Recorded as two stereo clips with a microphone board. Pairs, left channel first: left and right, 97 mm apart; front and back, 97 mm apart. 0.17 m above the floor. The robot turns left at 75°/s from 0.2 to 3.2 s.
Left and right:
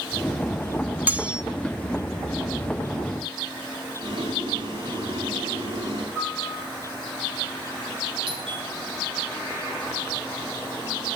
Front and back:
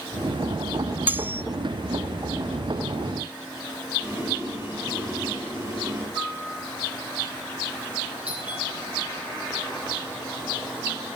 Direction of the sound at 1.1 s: 140° right.